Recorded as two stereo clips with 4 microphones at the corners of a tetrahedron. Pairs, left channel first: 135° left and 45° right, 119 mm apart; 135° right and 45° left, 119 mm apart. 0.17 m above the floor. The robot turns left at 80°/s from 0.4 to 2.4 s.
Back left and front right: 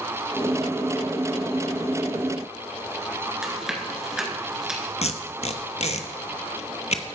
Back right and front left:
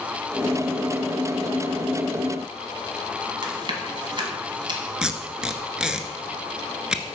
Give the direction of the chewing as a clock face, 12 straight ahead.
11 o'clock.